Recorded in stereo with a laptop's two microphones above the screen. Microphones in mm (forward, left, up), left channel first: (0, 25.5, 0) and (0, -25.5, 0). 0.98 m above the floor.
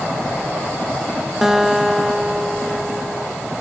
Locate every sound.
1.4 s a guitar: 5° right (ahead or behind), 1.6 m